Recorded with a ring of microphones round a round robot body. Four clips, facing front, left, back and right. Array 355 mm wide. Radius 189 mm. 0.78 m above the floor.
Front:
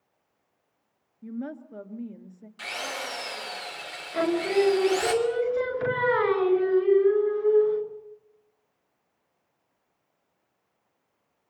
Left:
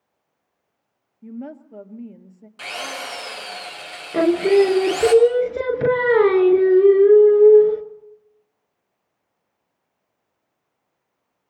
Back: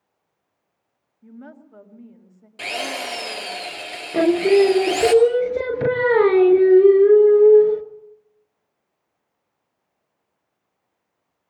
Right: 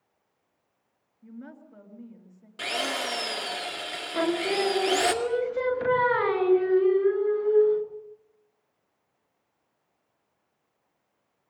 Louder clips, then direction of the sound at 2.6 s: Right 1 dB, back 7 dB; 145° right.